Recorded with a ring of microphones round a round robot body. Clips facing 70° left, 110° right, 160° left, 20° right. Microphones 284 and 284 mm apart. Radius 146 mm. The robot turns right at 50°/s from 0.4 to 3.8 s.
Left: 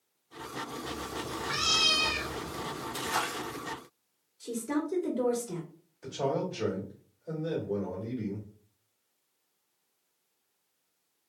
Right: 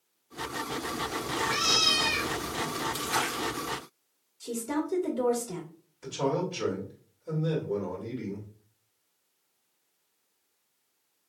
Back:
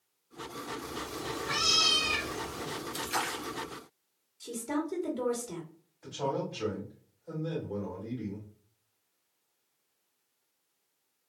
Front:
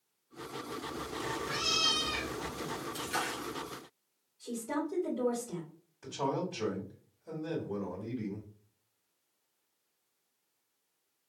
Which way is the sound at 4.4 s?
150° left.